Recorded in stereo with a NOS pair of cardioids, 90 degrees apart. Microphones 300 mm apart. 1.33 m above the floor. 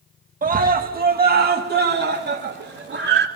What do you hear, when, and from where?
0.4 s a scream: 30° right, 1.8 m; by 3.3 s 35° right, 3.5 m